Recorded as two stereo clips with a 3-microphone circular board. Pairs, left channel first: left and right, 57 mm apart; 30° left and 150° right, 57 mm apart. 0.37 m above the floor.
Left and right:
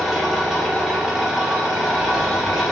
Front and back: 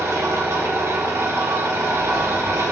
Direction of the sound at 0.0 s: 175° right.